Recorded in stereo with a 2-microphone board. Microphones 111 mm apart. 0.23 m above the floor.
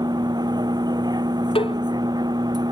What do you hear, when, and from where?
0.0 s a vehicle: 40° right (ahead or behind)
1.6 s a cowbell: 55° left (ahead or behind)